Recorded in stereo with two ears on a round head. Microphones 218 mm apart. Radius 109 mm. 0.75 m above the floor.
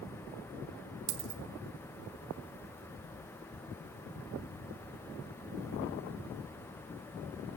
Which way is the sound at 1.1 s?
40° right (ahead or behind).